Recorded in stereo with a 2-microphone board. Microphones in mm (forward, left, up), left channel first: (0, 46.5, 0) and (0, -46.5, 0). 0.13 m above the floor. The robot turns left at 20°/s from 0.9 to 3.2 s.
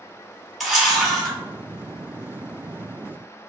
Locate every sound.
0.6 s a camera shutter: centre (ahead or behind), 1.2 m; by 1.4 s 10° left (ahead or behind), 1.2 m